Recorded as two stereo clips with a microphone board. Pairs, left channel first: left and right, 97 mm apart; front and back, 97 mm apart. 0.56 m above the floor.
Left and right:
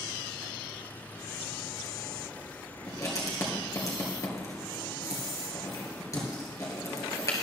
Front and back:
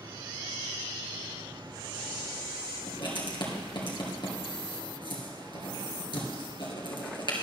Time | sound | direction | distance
2.9 | writing | 35° left | 2 m